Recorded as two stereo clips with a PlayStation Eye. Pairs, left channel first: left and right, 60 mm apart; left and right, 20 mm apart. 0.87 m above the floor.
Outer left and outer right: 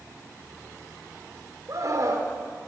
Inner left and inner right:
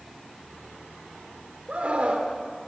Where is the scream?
70° right (ahead or behind), 2.5 m.